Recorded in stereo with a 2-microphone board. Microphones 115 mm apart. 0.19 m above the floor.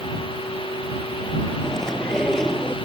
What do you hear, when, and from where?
1.6 s chewing: 5° left (ahead or behind)